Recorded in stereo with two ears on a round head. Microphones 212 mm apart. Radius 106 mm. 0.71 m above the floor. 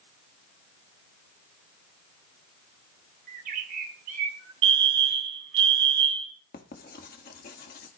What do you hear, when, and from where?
3.3 s a bird: 40° right (ahead or behind), 2 m
4.6 s a fire alarm: 55° right (ahead or behind), 3 m
6.5 s writing: 40° left (ahead or behind), 1.2 m